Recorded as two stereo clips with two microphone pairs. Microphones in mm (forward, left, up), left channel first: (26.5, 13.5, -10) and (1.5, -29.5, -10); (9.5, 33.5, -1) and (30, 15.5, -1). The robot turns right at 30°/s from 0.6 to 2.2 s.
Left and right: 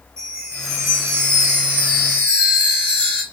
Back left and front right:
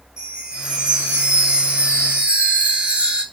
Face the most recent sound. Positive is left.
turn(degrees=-50)